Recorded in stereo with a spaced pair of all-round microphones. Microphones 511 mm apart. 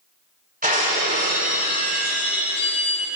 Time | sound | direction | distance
0.6 | breaking glass | 15° right (ahead or behind) | 5 m